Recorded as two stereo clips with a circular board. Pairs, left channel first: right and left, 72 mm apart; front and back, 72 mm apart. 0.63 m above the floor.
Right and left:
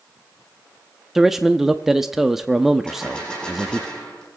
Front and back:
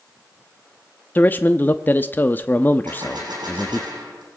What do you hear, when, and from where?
1.1 s a man speaking: 10° left, 0.6 m
2.9 s a gunshot: 165° right, 7 m